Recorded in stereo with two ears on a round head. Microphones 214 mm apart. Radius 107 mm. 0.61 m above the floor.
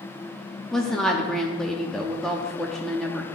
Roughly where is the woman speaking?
Centre.